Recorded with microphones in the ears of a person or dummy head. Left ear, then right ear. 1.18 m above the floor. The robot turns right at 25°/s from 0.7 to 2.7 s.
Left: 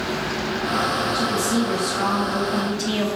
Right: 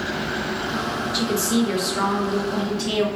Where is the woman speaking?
40° right, 0.5 m; by 3.1 s straight ahead, 0.5 m.